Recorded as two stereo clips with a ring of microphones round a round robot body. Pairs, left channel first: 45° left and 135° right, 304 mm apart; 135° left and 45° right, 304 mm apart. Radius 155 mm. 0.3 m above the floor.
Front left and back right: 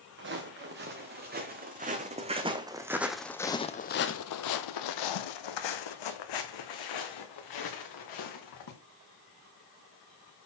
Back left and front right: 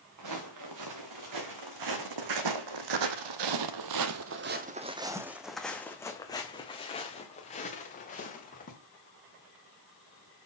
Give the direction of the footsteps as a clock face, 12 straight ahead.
3 o'clock.